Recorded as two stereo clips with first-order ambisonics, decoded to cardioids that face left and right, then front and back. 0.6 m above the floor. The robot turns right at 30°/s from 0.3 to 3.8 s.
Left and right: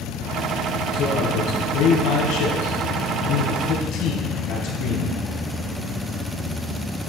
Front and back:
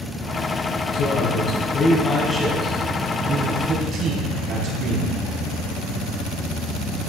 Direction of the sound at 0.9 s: 40° left.